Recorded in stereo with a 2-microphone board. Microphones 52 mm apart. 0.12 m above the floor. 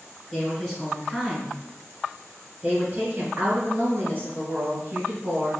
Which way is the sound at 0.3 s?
15° left (ahead or behind).